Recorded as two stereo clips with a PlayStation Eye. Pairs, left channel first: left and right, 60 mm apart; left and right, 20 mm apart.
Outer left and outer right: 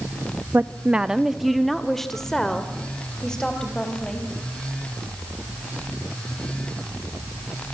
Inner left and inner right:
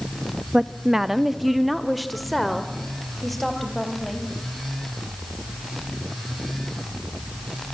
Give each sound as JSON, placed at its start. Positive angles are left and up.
{"t": 0.5, "sound": "a woman speaking", "side_deg": -35, "distance_m": 0.7}